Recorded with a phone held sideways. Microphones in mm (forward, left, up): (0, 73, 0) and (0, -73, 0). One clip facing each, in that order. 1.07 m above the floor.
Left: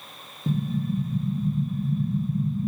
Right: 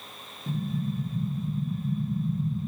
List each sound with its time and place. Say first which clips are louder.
0.5 s an explosion: left 4 dB; 45° left (ahead or behind), 1.9 m